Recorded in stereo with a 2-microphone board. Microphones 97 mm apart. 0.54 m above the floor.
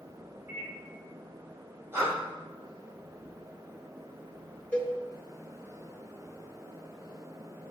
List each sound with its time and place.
0.5 s a microwave: 30° right (ahead or behind), 2 m
1.9 s breathing: 25° right (ahead or behind), 1.9 m
4.7 s a cowbell: 20° left (ahead or behind), 0.5 m